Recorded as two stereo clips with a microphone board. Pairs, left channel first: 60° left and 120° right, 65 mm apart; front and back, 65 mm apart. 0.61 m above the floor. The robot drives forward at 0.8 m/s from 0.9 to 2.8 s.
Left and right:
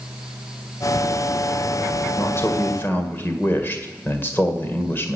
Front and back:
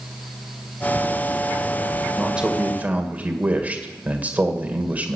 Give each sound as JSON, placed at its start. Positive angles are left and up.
{"t": 2.2, "sound": "a man speaking", "azimuth_deg": 100, "distance_m": 1.9}